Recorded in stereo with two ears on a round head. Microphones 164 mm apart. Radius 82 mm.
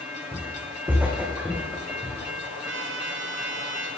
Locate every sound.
0.3 s footsteps: 15° right (ahead or behind), 3 m; by 2.2 s centre (ahead or behind), 4 m
2.7 s a trumpet: 75° right (ahead or behind), 1.5 m